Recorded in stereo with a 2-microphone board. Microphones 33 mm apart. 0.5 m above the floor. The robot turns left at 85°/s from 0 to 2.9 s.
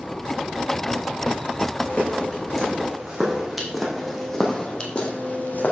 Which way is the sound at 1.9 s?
60° left (ahead or behind).